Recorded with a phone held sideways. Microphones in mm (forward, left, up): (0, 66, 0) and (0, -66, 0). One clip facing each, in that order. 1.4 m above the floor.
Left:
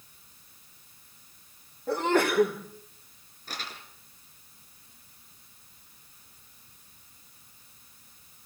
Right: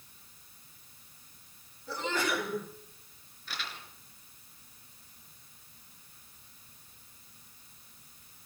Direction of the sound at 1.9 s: 65° left (ahead or behind).